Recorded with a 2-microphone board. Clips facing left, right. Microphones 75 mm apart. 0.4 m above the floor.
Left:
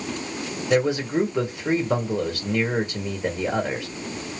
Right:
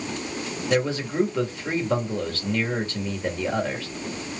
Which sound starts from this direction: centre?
A man speaking, at 0.7 s.